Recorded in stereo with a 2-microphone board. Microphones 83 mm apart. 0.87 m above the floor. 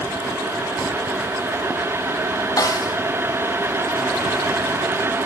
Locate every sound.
2.6 s a snare drum: 45° left (ahead or behind), 1.0 m